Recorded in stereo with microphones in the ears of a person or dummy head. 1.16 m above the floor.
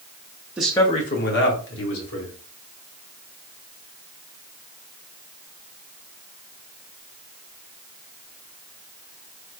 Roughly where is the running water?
I don't hear running water.